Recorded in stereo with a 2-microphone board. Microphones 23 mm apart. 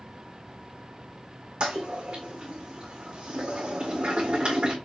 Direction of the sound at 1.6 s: 40° right (ahead or behind).